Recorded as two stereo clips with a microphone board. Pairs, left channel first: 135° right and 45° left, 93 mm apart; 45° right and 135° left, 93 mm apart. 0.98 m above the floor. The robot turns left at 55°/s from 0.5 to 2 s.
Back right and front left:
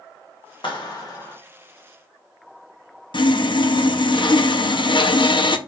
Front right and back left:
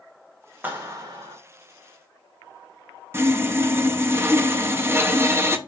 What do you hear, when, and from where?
0.6 s a clap: 155° right, 1.2 m; by 1.4 s 160° left, 1.2 m
3.1 s sawing: 160° right, 0.5 m